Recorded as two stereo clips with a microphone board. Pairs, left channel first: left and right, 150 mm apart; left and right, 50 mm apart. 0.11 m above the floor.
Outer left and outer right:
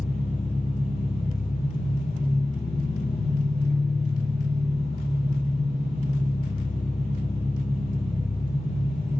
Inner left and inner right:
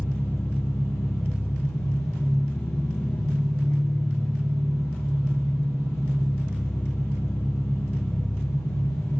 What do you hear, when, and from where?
0.0 s an engine running: 75° left (ahead or behind), 5 m